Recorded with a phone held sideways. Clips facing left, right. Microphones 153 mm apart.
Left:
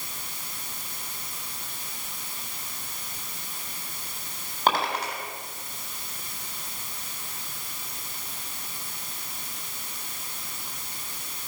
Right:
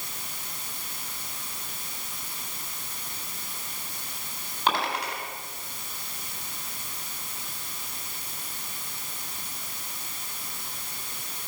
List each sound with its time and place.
4.7 s a dropped coin: 45° left (ahead or behind), 3.5 m